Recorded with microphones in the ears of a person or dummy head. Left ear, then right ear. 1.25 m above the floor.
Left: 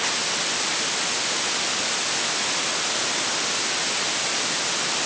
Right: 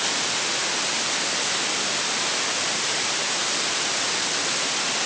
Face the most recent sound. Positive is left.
No sound to turn to.